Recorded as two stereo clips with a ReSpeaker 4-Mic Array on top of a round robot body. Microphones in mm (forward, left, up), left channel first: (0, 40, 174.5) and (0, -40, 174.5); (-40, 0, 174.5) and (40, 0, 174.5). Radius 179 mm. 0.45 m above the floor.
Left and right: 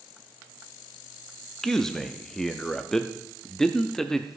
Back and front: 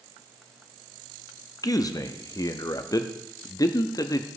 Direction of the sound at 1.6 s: 175° left.